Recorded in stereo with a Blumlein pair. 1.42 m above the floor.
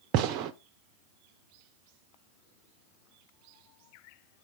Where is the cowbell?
No cowbell in this recording.